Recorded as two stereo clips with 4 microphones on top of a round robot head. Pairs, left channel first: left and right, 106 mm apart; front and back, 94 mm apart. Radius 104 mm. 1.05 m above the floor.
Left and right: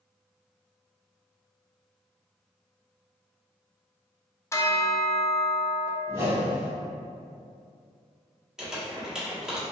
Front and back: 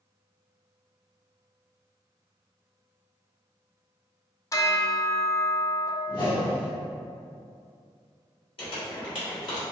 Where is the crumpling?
5° right, 1.6 m.